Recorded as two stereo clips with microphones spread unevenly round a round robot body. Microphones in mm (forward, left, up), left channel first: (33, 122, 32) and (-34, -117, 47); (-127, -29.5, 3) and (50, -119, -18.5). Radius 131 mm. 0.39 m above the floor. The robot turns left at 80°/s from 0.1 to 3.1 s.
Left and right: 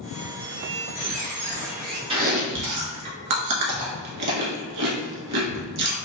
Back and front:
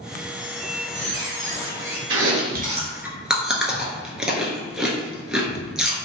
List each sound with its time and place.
0.4 s a squeak: 20° left, 1.0 m; by 2.0 s 110° right, 1.0 m
2.1 s chewing: 35° right, 1.1 m; by 6.0 s 115° right, 1.1 m